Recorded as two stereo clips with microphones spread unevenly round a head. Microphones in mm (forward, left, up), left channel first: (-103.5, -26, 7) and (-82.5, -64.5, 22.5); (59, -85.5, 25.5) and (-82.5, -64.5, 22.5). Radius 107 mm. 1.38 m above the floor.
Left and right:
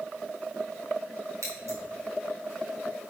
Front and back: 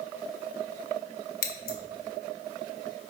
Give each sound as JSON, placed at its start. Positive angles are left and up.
{"t": 1.4, "sound": "scissors", "azimuth_deg": -20, "distance_m": 1.1}